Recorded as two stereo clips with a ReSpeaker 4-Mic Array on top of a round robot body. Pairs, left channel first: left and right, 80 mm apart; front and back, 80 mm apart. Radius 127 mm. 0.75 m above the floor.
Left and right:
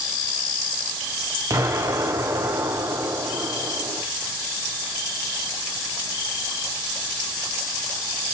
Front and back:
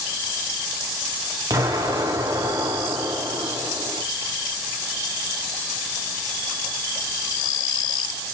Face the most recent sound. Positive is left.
turn(degrees=-135)